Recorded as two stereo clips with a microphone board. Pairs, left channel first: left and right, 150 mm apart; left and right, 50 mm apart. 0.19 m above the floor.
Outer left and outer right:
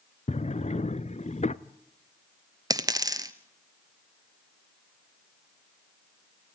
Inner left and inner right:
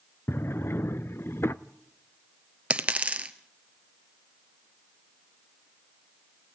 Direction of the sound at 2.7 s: 25° right (ahead or behind).